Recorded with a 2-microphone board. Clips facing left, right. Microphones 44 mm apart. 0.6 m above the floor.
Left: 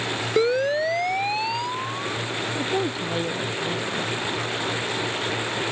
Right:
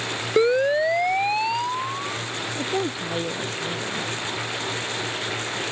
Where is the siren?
10° right (ahead or behind).